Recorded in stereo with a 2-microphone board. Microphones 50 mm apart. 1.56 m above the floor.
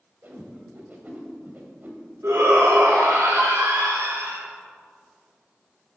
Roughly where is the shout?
Right.